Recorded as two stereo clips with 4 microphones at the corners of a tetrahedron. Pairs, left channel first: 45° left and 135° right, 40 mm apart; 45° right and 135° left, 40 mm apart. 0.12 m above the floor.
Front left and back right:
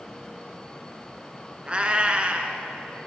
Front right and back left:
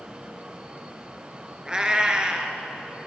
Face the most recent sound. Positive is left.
turn(degrees=-170)